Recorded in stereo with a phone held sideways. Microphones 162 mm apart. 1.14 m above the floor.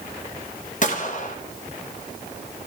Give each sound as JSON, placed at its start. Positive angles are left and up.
{"t": 0.8, "sound": "a gunshot", "side_deg": 50, "distance_m": 1.3}